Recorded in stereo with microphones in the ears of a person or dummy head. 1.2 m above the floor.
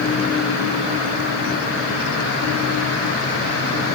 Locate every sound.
Only background noise.